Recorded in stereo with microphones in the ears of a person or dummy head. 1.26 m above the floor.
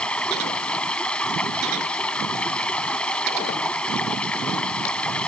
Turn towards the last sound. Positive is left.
turn(degrees=10)  # may be behind; listen again after turning